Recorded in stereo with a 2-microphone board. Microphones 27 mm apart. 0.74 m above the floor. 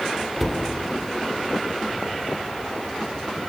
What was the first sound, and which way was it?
A cupboard door, centre (ahead or behind).